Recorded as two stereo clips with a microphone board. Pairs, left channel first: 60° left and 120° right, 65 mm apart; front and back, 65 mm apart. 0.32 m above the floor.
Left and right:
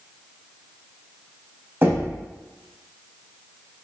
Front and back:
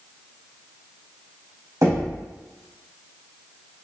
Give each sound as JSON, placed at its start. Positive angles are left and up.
{"t": 1.8, "sound": "knocking", "azimuth_deg": -170, "distance_m": 1.5}